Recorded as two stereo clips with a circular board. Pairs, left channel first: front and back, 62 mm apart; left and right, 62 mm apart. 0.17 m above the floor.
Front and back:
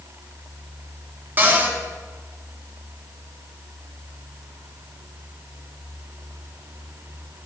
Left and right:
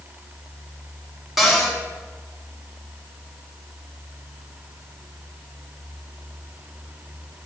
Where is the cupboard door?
175° right, 1.5 m.